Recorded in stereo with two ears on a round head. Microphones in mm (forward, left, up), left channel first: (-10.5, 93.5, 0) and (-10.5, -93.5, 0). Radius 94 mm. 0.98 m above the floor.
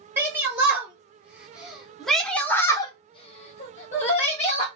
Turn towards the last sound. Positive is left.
turn(degrees=30)  # may be behind; listen again after turning